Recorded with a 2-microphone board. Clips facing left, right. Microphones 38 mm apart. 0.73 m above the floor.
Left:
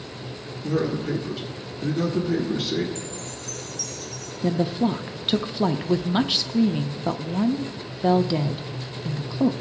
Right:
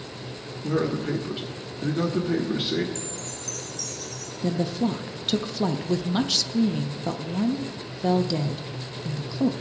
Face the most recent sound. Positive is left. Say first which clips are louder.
# left 3 dB
turn(degrees=25)  # may be behind; listen again after turning